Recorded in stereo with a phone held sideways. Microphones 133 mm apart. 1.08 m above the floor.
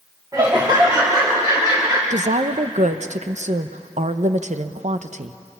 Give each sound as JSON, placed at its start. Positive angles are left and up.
{"t": 0.3, "sound": "laughter", "side_deg": -30, "distance_m": 2.0}
{"t": 2.1, "sound": "a woman speaking", "side_deg": -60, "distance_m": 0.8}